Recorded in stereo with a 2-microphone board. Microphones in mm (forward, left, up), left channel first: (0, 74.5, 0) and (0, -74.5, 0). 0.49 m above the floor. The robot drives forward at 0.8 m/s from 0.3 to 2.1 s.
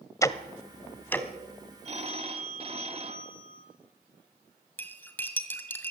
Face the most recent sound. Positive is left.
turn(degrees=10)  # may be behind; listen again after turning